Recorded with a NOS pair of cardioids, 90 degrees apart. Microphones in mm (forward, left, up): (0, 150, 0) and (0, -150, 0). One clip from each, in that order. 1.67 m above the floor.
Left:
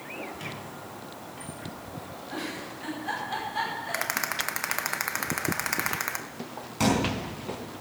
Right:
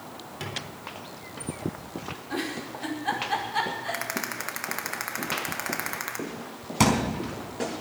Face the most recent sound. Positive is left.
turn(degrees=-60)